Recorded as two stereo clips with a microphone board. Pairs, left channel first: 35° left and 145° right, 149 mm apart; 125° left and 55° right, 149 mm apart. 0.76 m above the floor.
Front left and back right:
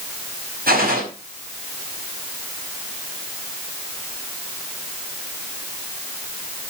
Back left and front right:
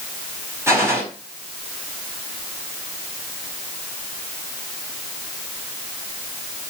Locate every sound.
0.7 s a gunshot: 130° right, 5 m